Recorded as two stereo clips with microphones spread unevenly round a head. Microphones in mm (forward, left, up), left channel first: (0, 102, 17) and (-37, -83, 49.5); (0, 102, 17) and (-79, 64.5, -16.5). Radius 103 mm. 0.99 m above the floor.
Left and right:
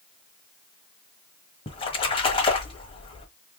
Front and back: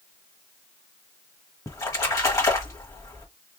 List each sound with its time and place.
1.7 s a splash: 10° left, 1.2 m